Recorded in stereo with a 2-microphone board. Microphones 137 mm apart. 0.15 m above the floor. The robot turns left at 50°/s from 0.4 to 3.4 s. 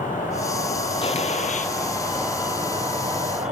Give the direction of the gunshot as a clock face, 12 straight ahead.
7 o'clock.